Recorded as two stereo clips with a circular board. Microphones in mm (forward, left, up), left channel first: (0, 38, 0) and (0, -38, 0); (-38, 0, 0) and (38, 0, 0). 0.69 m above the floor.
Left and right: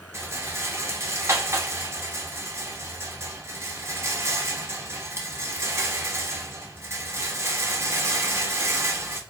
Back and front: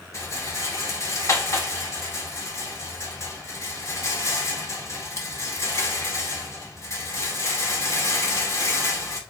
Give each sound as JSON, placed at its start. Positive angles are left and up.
{"t": 0.1, "sound": "a rattle", "azimuth_deg": -140, "distance_m": 1.0}